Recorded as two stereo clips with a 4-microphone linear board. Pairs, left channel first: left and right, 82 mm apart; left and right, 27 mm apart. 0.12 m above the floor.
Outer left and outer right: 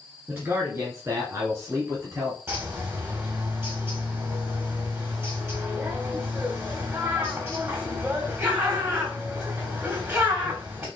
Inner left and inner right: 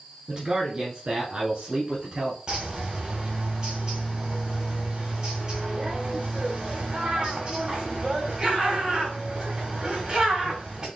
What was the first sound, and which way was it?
A man speaking, 25° right (ahead or behind).